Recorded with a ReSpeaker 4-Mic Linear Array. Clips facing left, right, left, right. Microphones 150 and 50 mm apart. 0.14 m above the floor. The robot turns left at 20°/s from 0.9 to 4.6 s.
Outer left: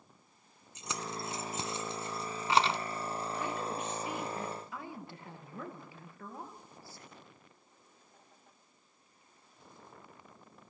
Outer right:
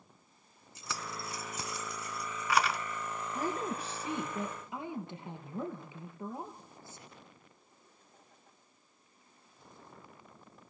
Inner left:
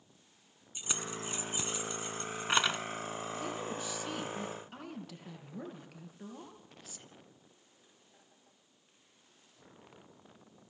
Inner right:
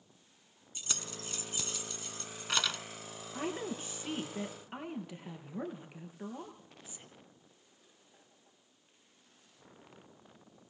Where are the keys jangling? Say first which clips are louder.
Outer left 2 dB, inner left 4 dB; 20° left (ahead or behind), 0.9 m; by 2.8 s 25° left (ahead or behind), 0.9 m.